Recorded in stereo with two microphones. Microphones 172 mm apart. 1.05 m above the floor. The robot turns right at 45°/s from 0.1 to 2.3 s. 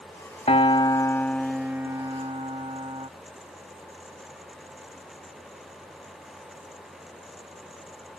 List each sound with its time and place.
0.5 s a piano: 135° left; by 3.1 s 145° right